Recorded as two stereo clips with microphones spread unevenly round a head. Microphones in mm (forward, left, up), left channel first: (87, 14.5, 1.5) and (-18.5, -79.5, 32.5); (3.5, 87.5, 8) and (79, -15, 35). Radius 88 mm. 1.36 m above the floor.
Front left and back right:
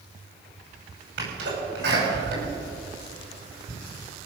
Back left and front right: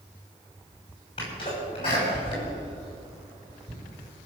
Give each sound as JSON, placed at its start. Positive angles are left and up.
{"t": 1.2, "sound": "a sneeze", "azimuth_deg": -170, "distance_m": 6.0}